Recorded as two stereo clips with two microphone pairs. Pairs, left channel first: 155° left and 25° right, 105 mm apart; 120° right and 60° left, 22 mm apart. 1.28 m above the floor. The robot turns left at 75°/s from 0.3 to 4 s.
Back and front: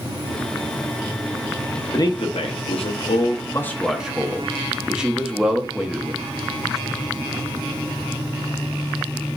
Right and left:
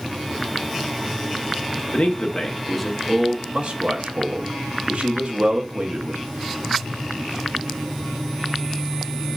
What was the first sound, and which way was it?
A man speaking, 145° right.